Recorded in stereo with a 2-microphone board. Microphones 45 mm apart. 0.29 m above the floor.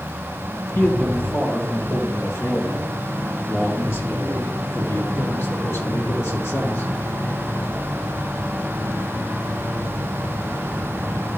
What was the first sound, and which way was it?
A man speaking, 65° left (ahead or behind).